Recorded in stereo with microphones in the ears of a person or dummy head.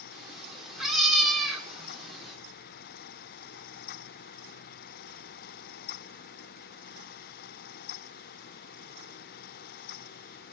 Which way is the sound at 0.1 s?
Centre (ahead or behind).